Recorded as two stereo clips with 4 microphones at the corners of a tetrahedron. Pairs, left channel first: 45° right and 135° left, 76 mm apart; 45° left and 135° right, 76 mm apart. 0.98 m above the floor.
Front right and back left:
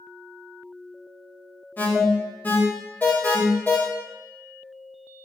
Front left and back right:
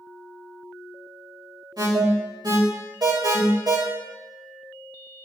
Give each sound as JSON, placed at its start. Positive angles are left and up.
{"t": 1.8, "sound": "an alarm", "azimuth_deg": -110, "distance_m": 3.5}